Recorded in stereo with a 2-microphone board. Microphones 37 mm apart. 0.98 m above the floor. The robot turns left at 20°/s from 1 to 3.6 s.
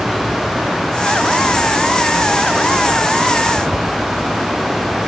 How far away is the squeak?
I don't hear a squeak.